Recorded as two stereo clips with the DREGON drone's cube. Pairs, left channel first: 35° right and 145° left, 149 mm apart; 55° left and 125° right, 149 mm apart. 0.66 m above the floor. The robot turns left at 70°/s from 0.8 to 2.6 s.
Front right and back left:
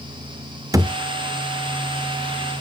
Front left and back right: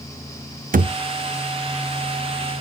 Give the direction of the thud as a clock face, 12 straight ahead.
5 o'clock.